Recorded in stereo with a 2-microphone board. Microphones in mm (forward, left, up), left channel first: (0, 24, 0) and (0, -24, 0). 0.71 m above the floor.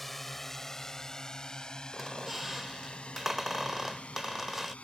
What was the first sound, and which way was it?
A drone, centre (ahead or behind).